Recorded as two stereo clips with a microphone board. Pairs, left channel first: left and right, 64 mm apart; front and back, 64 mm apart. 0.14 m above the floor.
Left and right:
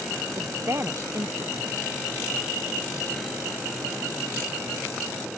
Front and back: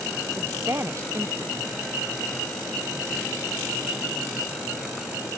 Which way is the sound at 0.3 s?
135° right.